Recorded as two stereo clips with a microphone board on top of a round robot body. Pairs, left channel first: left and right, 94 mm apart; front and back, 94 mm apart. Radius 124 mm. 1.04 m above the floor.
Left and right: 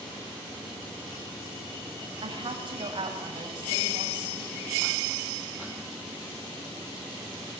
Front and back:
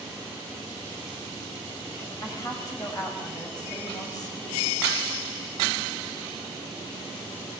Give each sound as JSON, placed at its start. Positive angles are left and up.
{"t": 2.2, "sound": "a woman speaking", "azimuth_deg": -55, "distance_m": 6.0}